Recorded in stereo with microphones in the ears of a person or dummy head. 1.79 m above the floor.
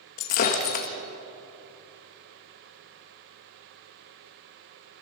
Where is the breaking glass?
45° left (ahead or behind), 1.6 m.